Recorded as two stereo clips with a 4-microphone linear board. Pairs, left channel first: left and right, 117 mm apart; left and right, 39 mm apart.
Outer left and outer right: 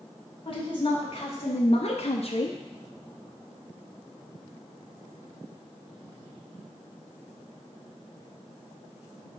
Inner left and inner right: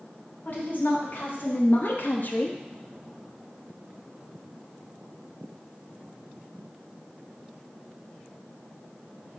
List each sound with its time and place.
0.5 s a woman speaking: 50° left (ahead or behind), 3.5 m; by 2.6 s 35° left (ahead or behind), 0.9 m